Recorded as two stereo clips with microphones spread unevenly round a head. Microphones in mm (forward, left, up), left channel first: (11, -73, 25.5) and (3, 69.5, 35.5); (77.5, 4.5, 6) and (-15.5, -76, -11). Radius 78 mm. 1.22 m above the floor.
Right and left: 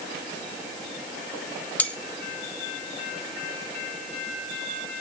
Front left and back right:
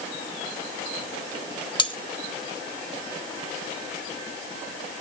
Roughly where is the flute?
I don't hear a flute.